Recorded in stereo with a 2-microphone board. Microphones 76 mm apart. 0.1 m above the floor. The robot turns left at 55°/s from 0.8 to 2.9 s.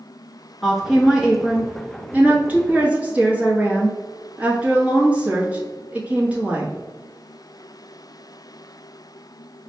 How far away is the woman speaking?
About 1.2 m.